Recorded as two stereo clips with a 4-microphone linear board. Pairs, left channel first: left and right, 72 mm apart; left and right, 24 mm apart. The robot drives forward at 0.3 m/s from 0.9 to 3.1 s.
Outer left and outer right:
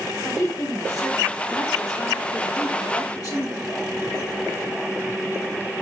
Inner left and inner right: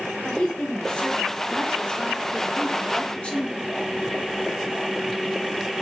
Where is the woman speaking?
45° left (ahead or behind), 1.8 m; by 3.7 s 55° left (ahead or behind), 1.5 m.